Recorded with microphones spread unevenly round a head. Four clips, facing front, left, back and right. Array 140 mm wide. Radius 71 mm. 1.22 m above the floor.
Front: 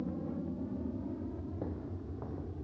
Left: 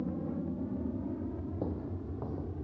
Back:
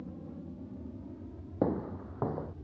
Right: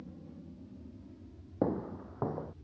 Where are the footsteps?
145° right.